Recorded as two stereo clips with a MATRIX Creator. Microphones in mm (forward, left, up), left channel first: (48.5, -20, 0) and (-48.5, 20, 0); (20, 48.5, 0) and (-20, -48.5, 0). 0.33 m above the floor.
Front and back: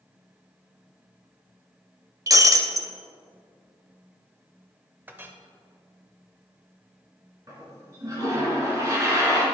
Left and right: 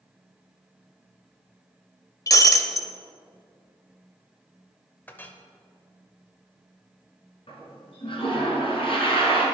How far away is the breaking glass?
About 0.5 m.